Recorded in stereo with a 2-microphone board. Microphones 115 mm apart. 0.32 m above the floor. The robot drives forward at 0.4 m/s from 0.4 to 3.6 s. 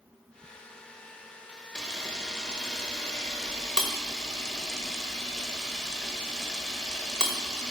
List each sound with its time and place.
1.8 s a camera shutter: 5° left (ahead or behind), 1.0 m